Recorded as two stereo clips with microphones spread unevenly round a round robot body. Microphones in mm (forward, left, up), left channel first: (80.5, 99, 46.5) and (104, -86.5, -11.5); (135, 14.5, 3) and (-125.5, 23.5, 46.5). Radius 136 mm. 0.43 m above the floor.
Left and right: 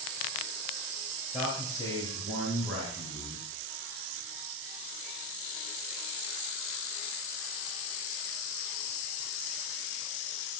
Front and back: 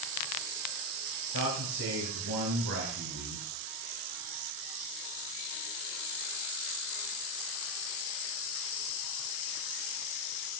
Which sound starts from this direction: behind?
A man speaking, at 1.3 s.